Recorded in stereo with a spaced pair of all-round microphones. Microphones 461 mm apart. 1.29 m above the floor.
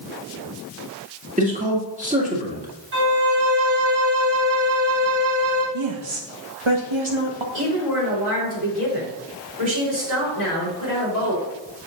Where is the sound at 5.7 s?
85° right, 1.3 m.